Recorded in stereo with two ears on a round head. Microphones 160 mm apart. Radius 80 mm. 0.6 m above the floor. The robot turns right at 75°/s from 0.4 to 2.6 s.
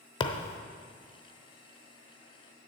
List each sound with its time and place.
0.2 s a thud: 25° left (ahead or behind), 0.8 m; by 0.6 s 45° left (ahead or behind), 0.8 m